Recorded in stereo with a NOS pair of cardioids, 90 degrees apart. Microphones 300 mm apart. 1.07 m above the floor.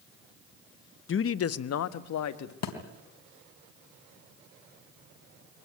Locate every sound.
1.1 s a man speaking: 40° left, 1.0 m; by 2.5 s 65° left, 1.9 m
2.6 s a thud: 65° left, 3.5 m